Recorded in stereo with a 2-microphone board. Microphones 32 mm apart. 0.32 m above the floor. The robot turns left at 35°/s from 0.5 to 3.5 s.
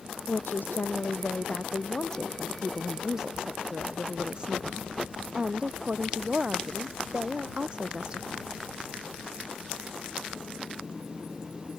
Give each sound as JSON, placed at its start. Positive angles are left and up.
{"t": 0.3, "sound": "a woman speaking", "azimuth_deg": 80}